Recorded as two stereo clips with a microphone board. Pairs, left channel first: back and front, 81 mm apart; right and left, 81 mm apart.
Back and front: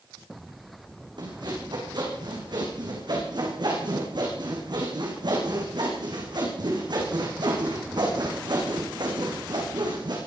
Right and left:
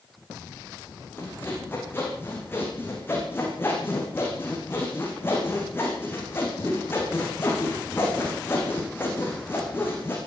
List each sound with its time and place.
1.2 s sawing: 25° right, 8 m